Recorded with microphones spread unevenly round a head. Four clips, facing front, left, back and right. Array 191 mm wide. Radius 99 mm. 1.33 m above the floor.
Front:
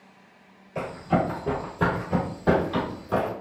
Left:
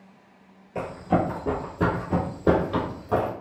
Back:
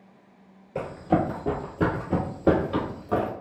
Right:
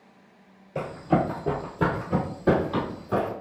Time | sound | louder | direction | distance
0.8 | running footsteps | even, back 1 dB | 170° right | 1.3 m